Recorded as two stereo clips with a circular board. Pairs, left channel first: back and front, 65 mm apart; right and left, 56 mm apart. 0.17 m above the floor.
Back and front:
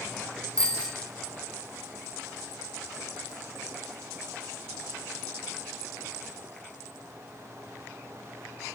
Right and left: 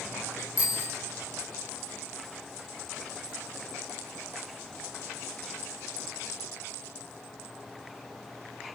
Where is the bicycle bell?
105° right, 4.5 m.